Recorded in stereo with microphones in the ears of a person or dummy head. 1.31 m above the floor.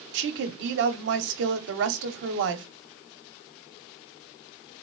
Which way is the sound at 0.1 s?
60° right (ahead or behind).